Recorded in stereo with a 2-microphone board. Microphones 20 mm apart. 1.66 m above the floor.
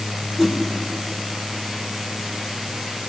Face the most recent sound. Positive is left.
turn(degrees=-10)  # may be behind; listen again after turning